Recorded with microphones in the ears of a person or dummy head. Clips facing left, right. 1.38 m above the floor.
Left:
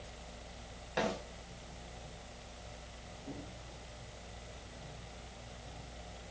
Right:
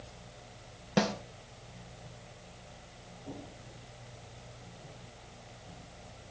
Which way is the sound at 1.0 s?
65° right (ahead or behind).